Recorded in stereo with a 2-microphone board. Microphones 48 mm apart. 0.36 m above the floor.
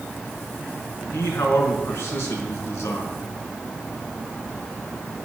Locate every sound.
1.1 s a man speaking: 70° left (ahead or behind), 3.5 m